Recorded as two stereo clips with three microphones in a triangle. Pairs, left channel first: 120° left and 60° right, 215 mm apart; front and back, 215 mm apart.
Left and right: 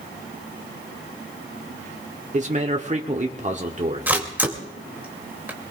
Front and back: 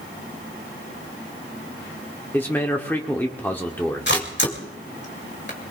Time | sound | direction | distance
2.3 | a man speaking | 75° right | 1.1 m
4.1 | a camera shutter | 20° left | 2.5 m